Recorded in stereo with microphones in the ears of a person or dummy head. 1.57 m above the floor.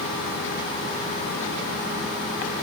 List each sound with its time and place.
Only background noise.